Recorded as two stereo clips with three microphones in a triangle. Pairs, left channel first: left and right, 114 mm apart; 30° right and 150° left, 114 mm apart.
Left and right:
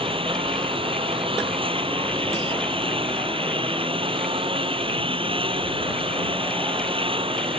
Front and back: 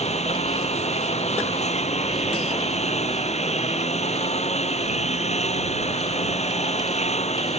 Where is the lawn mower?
50° right.